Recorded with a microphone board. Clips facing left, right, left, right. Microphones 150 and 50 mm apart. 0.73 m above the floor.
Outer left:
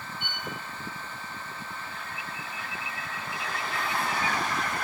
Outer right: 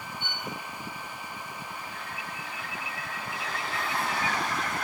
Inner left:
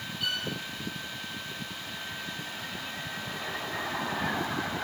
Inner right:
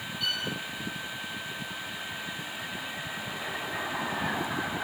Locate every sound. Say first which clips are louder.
0.2 s a violin: outer right 1 dB, even; 15° left (ahead or behind), 3 m